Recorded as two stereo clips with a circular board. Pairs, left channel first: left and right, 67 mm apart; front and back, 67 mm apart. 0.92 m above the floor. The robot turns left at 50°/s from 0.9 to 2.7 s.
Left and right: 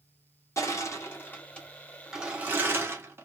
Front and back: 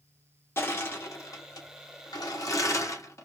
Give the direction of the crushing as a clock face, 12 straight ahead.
10 o'clock.